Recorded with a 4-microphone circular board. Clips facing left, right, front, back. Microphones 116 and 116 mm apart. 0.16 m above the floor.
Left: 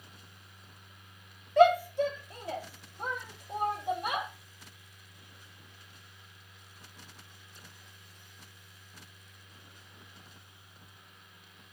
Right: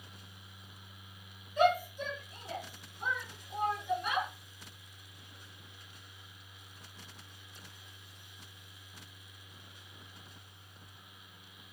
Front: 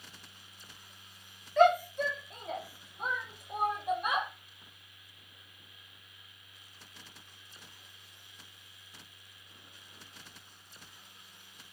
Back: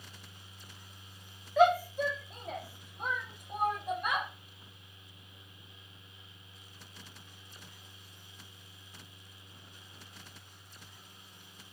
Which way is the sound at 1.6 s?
95° left.